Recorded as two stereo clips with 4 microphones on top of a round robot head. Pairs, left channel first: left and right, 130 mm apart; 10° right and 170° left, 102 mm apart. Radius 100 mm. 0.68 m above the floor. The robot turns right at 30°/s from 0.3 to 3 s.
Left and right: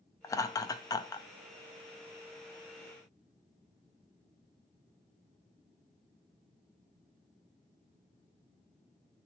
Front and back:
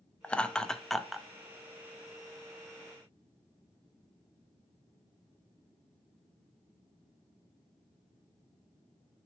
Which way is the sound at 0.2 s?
60° left.